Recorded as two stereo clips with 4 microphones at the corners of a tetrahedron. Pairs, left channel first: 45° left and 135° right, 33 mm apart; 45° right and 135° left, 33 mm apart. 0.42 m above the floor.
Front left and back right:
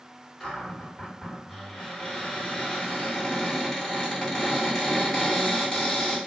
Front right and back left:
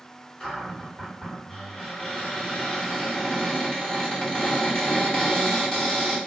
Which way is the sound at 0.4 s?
20° right.